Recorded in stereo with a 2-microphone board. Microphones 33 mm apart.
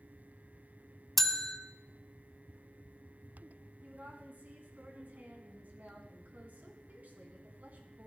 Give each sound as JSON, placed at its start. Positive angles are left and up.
{"t": 1.2, "sound": "a bell", "side_deg": 5, "distance_m": 0.5}
{"t": 3.8, "sound": "a woman speaking", "side_deg": -60, "distance_m": 2.0}